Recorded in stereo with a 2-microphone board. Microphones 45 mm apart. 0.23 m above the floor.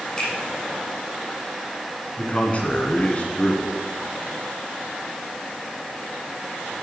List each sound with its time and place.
0.2 s a finger snap: 20° left (ahead or behind), 5 m
2.2 s a man speaking: 30° left (ahead or behind), 2 m